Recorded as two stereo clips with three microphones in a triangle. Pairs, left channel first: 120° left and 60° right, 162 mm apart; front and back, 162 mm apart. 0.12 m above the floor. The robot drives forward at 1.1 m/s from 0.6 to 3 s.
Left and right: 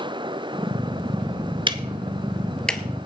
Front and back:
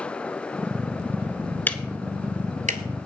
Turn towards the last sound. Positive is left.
turn(degrees=-160)